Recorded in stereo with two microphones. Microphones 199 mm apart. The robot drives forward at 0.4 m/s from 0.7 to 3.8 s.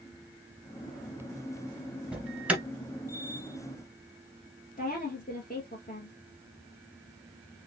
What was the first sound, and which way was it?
An alarm, 5° right (ahead or behind).